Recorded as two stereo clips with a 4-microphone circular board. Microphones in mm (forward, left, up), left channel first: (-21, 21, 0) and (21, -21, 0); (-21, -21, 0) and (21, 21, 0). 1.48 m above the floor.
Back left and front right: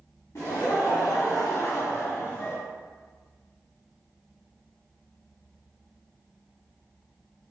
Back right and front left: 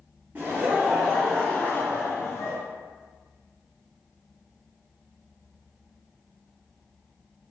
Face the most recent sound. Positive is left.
turn(degrees=-170)